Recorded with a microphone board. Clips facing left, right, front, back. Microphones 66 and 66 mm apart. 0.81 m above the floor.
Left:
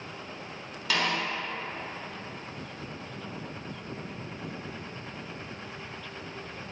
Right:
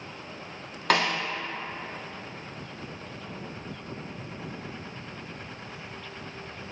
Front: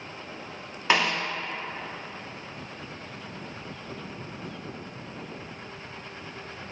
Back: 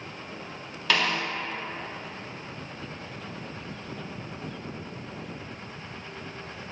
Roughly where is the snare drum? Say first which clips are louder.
Right 4 dB, front 2 dB; ahead right.